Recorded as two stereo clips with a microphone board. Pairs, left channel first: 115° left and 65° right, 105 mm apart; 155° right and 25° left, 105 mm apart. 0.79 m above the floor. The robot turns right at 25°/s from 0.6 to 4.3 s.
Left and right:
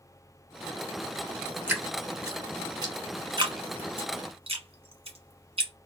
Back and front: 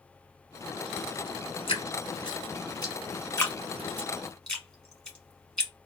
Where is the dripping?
140° right, 1.3 m; by 5.7 s 75° right, 1.3 m.